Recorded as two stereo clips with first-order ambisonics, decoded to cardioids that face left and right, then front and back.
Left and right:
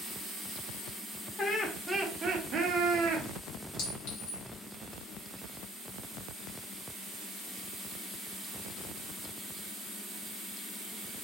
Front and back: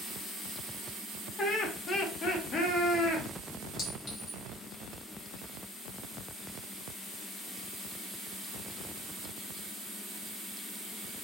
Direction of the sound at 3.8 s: 65° left.